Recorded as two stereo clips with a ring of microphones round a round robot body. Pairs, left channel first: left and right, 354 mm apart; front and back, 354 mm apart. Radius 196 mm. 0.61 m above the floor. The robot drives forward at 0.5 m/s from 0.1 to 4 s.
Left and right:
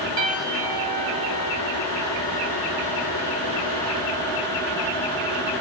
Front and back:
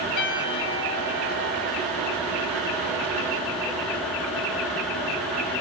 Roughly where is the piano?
Ahead right.